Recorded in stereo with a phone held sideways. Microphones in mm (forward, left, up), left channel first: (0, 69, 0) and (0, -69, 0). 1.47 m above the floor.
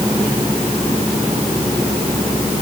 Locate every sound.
Only background noise.